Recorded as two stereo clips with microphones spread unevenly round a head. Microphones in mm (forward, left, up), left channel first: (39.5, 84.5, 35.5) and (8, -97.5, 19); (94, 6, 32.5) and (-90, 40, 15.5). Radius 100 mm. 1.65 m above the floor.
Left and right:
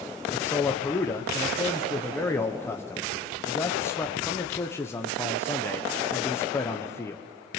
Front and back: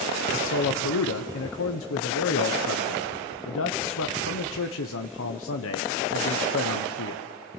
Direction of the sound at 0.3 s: 5° left.